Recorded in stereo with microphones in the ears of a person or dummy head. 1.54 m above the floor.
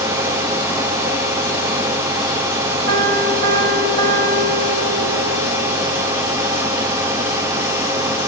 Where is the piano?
75° right (ahead or behind), 3.5 m.